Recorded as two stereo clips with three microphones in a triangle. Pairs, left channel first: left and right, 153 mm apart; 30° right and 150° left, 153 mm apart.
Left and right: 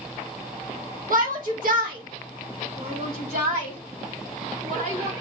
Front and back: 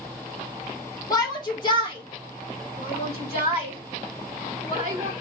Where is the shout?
95° right, 1.5 m; by 5.1 s 70° right, 3.5 m.